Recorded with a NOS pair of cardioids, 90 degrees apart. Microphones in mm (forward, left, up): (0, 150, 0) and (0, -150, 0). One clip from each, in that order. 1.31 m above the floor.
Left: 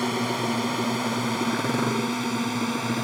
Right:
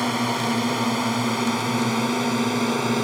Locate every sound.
0.0 s a drone: 20° right; by 3.0 s 25° right